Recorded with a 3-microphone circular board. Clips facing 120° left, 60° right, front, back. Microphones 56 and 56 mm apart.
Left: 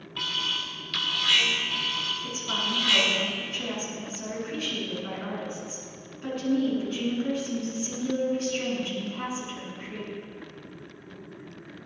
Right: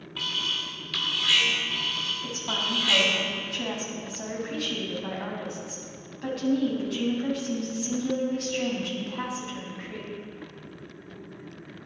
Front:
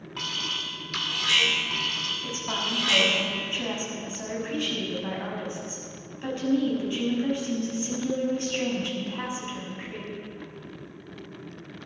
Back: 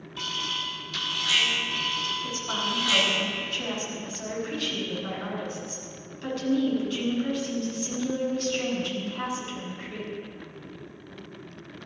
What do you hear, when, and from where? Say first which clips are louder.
0.2 s an alarm: even, even; 25° left, 2 m
2.2 s a woman speaking: even, back 1 dB; 65° right, 5.5 m